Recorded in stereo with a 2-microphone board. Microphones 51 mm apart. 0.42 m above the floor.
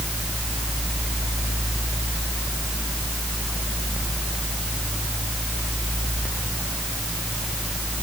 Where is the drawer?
No drawer in this recording.